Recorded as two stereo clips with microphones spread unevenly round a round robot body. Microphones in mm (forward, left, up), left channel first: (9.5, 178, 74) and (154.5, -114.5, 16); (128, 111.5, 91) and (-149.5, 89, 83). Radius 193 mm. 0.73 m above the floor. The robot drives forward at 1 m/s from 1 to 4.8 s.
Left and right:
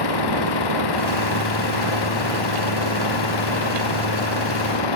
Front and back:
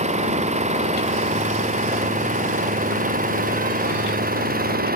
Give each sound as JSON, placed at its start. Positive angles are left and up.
{"t": 0.0, "sound": "an engine running", "azimuth_deg": 120}